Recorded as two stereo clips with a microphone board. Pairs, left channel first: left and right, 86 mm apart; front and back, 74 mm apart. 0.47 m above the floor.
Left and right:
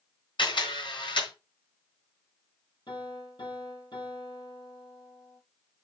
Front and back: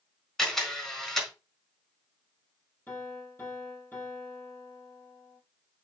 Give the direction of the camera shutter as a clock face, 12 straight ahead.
9 o'clock.